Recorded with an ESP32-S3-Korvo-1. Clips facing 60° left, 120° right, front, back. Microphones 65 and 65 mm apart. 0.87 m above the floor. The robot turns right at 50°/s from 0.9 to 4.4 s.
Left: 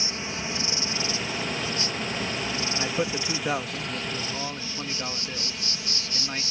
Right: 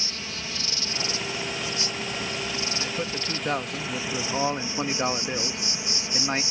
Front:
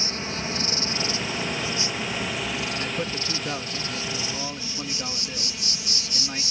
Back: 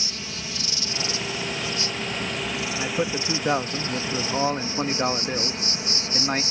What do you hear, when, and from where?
0.0 s an insect: 5° left; by 6.5 s straight behind
2.8 s a man speaking: 115° left; by 6.4 s 165° right